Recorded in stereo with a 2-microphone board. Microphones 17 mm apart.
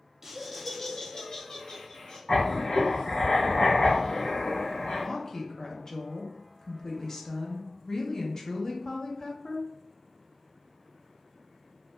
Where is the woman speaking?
40° left (ahead or behind), 0.6 m.